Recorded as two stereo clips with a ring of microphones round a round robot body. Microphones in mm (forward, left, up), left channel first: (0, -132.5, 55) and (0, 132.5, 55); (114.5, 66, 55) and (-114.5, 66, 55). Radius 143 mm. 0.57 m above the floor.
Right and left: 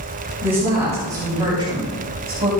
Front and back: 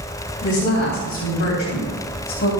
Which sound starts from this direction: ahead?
A woman speaking, at 0.4 s.